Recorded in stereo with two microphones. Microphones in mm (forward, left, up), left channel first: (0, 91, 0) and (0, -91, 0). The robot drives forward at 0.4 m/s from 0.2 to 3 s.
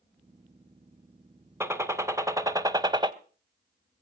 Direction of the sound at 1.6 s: 15° right (ahead or behind).